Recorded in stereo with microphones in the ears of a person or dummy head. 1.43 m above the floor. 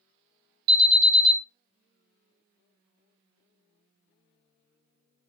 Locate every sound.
0.7 s an alarm: 45° right (ahead or behind), 1.0 m